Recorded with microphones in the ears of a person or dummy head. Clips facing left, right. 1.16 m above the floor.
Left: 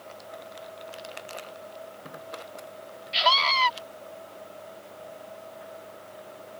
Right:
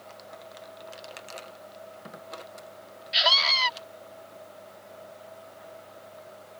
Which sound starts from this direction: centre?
A scream, at 3.1 s.